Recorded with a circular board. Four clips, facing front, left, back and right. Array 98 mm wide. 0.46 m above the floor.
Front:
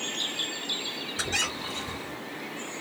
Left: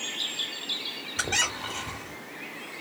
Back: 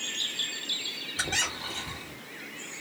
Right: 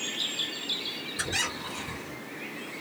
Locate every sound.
1.2 s a squeak: 100° left, 1.1 m